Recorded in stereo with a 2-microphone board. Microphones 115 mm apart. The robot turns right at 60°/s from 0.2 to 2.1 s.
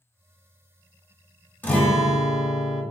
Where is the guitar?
15° left (ahead or behind), 0.6 m; by 2.8 s centre (ahead or behind), 0.6 m.